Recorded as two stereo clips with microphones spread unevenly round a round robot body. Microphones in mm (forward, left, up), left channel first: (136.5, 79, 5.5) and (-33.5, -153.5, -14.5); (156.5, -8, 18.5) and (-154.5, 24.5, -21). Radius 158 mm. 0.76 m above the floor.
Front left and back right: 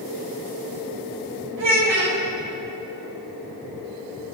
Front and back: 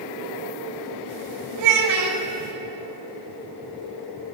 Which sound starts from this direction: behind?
A child speaking, at 1.6 s.